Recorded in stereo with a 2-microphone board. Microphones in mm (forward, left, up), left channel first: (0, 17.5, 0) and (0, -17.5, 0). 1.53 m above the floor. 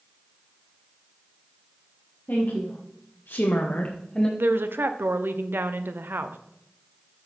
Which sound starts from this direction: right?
A woman speaking, at 4.4 s.